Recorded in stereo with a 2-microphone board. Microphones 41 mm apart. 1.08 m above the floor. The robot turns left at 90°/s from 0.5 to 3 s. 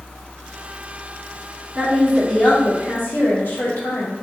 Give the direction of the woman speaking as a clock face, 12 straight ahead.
5 o'clock.